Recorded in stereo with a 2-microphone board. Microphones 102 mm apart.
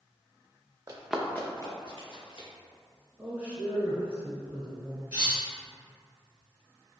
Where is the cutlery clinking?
15° right (ahead or behind), 1.3 m.